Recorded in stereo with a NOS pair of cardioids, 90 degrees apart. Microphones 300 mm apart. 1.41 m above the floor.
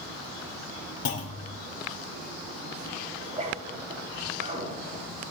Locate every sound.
1.1 s a clunk: 50° left, 2.5 m
3.2 s a zipper: 25° right, 9 m